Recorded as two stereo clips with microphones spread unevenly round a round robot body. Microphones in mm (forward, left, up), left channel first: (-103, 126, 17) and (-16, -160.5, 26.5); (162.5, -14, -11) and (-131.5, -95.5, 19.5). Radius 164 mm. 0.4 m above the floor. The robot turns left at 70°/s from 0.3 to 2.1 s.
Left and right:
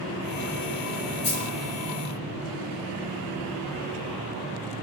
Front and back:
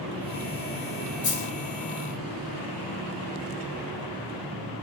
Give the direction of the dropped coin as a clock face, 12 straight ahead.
10 o'clock.